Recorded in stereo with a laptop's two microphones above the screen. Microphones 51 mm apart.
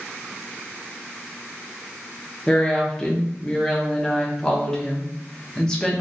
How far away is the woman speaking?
About 0.6 m.